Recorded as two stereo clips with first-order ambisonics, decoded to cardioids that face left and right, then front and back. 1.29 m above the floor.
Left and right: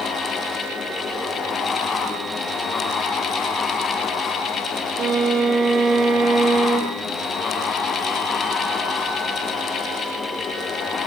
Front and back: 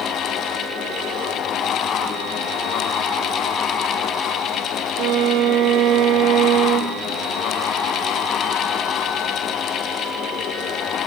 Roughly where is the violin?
Behind right.